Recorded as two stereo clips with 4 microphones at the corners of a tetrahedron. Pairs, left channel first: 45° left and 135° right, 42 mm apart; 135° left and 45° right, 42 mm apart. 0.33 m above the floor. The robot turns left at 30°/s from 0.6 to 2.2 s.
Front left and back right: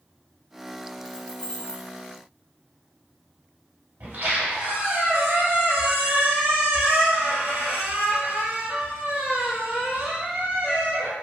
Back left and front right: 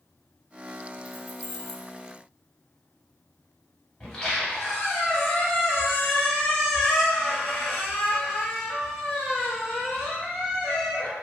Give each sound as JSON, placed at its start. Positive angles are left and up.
{"t": 1.1, "sound": "keys jangling", "azimuth_deg": 35, "distance_m": 0.5}
{"t": 4.0, "sound": "a squeak", "azimuth_deg": -155, "distance_m": 1.1}